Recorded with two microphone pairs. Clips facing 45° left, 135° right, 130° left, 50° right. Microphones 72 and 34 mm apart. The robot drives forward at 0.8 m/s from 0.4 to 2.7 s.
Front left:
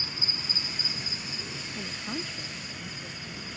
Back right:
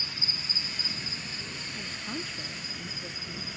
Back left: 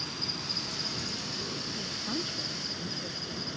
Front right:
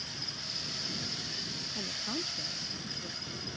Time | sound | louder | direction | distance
0.0 | an insect | front left 1 dB, back left 5 dB | 105° left | ?
1.8 | a woman speaking | front left 2 dB, even | 15° left | ?